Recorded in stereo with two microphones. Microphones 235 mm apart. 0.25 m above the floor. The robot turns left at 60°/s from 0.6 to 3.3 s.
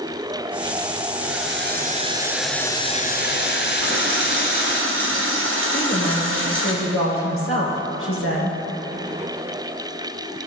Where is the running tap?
65° right (ahead or behind), 2 m.